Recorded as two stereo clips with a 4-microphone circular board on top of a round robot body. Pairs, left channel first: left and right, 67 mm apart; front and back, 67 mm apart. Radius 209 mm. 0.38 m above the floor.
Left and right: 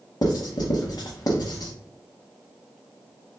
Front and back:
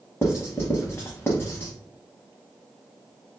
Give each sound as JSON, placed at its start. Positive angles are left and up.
{"t": 0.2, "sound": "writing", "azimuth_deg": 60, "distance_m": 0.7}